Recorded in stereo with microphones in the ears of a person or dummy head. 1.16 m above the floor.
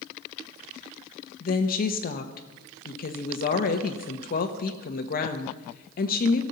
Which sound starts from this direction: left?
A woman speaking, at 1.4 s.